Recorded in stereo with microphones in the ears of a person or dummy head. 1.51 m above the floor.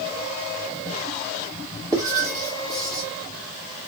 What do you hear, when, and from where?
1.9 s writing: 25° right (ahead or behind), 2.5 m